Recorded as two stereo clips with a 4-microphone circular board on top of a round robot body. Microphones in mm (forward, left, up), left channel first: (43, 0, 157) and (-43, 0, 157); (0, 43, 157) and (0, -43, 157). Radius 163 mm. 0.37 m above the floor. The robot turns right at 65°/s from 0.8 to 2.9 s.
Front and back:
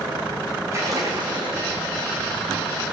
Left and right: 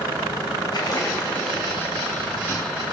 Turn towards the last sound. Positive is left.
turn(degrees=-100)